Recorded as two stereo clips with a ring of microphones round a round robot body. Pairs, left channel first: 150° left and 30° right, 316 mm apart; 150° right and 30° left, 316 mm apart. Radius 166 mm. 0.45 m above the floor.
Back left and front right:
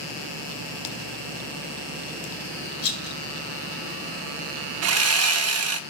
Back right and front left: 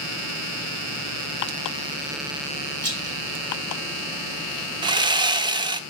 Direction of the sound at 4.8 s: 40° right.